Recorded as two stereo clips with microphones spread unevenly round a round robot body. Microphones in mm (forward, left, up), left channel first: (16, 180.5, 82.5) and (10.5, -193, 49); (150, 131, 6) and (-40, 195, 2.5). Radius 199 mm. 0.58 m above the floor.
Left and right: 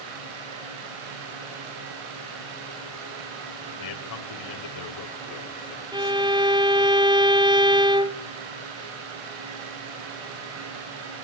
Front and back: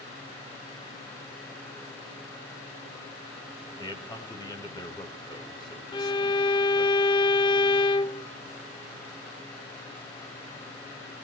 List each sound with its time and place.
3.8 s a man speaking: 50° left, 3 m
5.9 s a violin: 45° right, 0.7 m